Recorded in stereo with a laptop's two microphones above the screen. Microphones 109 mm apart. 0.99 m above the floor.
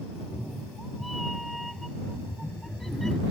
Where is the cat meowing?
Centre (ahead or behind); by 3.2 s 5° left (ahead or behind).